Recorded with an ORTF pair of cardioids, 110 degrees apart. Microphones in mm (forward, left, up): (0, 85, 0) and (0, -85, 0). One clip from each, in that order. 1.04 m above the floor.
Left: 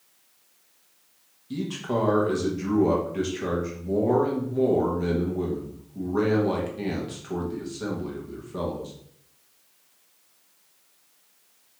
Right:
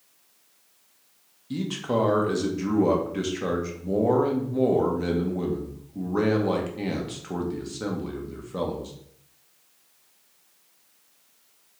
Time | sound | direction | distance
1.5 | a man speaking | 15° right | 0.8 m